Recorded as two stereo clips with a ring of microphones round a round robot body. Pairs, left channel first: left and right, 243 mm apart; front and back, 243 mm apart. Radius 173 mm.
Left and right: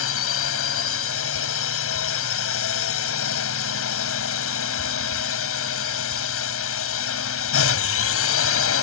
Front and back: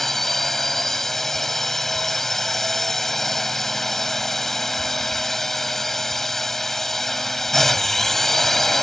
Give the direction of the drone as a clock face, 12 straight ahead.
9 o'clock.